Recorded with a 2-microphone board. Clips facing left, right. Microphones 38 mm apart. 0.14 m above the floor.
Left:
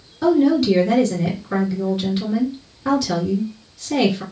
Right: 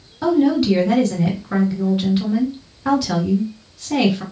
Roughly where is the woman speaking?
Centre.